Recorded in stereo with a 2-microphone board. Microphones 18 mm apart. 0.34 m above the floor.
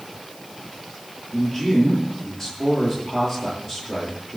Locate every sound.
1.3 s a man speaking: 30° left (ahead or behind), 8.5 m